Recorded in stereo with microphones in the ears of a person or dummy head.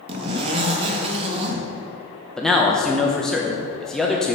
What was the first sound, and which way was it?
A zipper, 30° right (ahead or behind).